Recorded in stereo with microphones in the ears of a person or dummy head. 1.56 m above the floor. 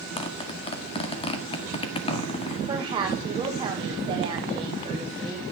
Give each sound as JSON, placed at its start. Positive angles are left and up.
{"t": 0.2, "sound": "a zipper", "side_deg": 30, "distance_m": 1.8}
{"t": 2.7, "sound": "a woman speaking", "side_deg": -25, "distance_m": 1.8}